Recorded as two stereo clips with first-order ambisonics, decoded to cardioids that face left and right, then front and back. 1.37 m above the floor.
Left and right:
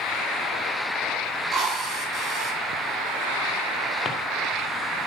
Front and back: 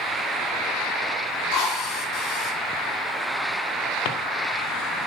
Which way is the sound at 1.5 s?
30° right.